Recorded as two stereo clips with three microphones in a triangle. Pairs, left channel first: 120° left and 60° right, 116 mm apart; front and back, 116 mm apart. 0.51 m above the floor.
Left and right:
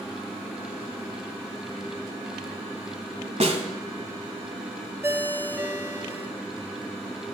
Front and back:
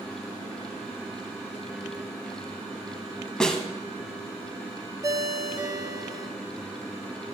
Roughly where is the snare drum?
Right.